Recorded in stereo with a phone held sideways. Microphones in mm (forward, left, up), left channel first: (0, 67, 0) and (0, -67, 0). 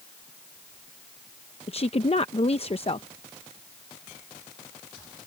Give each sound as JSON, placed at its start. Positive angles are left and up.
{"t": 1.7, "sound": "a woman speaking", "side_deg": 45}